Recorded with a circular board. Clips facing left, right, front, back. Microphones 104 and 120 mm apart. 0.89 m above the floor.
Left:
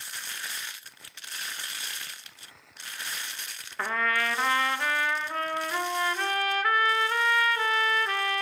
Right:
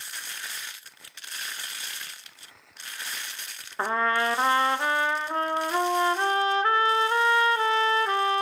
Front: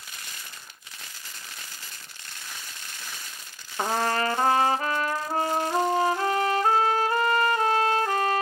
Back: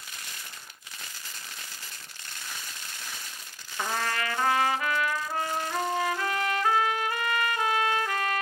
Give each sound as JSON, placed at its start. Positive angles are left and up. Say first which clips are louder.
{"t": 3.8, "sound": "a trumpet", "louder": "right 4 dB, front 5 dB", "azimuth_deg": -40, "distance_m": 0.7}